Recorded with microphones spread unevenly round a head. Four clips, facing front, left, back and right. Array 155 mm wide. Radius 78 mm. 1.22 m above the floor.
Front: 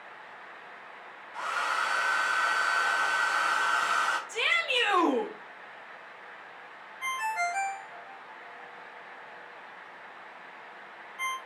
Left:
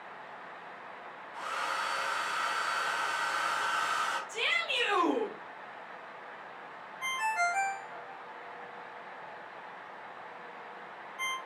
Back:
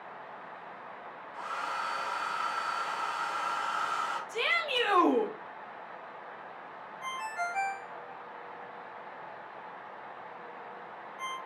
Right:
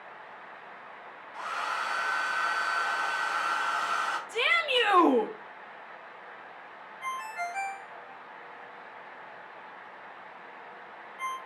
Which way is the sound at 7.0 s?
50° left.